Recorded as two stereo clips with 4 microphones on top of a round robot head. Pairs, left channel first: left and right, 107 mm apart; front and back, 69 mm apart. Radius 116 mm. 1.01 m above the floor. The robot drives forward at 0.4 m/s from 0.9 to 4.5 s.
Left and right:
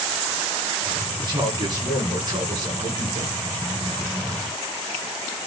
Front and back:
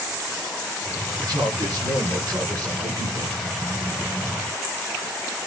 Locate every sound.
1.2 s a man speaking: 140° right, 9.5 m; by 3.4 s 145° right, 10 m